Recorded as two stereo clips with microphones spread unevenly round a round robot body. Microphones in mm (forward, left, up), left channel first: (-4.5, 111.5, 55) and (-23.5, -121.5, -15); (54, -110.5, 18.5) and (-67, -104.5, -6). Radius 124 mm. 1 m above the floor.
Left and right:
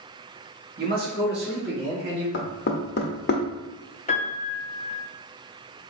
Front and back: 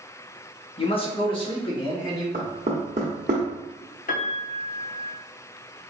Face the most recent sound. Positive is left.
turn(degrees=15)